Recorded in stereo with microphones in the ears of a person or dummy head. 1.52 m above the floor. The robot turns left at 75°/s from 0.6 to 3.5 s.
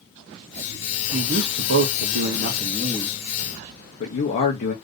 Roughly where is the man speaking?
Ahead right.